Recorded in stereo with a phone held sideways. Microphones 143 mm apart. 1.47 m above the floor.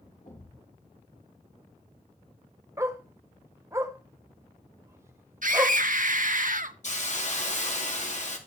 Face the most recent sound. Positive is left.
turn(degrees=55)  # may be behind; listen again after turning